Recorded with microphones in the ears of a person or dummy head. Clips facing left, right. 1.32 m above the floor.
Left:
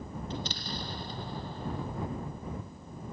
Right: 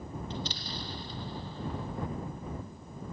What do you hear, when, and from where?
0.3 s an explosion: 45° left (ahead or behind)